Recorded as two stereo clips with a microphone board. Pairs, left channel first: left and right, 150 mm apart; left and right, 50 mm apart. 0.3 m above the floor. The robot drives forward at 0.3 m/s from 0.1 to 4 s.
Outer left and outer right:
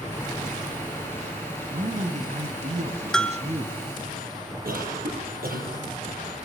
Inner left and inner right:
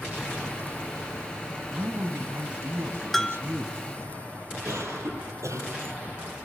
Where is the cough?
80° right, 8 m.